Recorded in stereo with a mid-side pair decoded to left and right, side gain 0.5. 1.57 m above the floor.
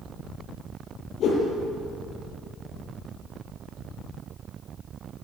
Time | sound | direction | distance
1.2 | a whoosh | 60° left | 8.5 m